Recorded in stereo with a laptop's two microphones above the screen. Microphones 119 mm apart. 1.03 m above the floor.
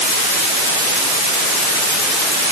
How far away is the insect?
No insect in this recording.